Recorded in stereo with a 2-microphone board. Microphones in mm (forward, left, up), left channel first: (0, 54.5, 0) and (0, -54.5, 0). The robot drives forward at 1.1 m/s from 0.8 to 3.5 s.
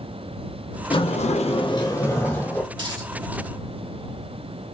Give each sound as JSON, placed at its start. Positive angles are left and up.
{"t": 0.9, "sound": "a sliding door", "side_deg": 50, "distance_m": 0.6}
{"t": 2.7, "sound": "a dropped coin", "side_deg": -45, "distance_m": 2.5}